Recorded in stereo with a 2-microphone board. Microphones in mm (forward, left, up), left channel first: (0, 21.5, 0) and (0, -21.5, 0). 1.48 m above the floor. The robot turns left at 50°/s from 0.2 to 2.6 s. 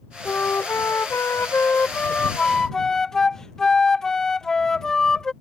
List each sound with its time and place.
0.2 s a flute: 130° left; by 5.3 s 10° left